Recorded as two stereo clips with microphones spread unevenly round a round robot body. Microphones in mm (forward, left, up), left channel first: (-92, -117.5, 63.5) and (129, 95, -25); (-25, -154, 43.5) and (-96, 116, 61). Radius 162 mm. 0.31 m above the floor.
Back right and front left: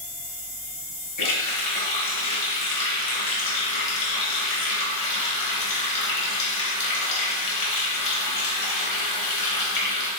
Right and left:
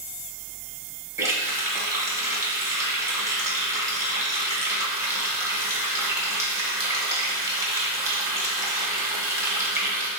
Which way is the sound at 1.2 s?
175° right.